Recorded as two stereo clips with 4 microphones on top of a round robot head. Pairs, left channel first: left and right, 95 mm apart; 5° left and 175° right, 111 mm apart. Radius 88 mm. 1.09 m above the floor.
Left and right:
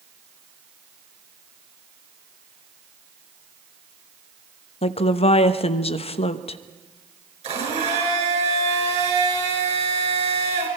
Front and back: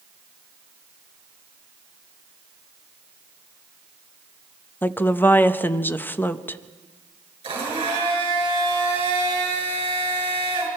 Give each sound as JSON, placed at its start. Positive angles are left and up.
{"t": 4.8, "sound": "a woman speaking", "azimuth_deg": 75, "distance_m": 1.0}
{"t": 7.4, "sound": "a blender", "azimuth_deg": -120, "distance_m": 5.5}